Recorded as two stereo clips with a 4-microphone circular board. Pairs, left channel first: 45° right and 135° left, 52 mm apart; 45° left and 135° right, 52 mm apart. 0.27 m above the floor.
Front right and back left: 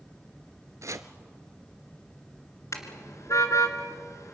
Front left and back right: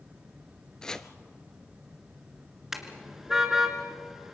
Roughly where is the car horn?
Ahead right.